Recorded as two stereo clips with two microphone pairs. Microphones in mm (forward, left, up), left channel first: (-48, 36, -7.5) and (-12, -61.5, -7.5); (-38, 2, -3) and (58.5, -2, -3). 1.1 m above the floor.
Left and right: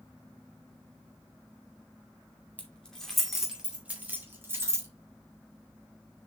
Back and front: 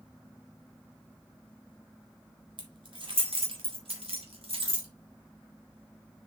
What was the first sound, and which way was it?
Keys jangling, 35° left.